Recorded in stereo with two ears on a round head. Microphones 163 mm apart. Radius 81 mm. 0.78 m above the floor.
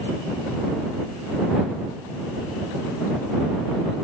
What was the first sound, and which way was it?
Only background noise.